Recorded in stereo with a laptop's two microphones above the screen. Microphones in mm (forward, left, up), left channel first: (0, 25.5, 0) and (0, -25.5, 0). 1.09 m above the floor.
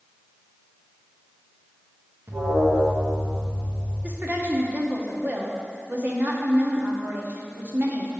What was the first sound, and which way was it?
An alarm, 60° right (ahead or behind).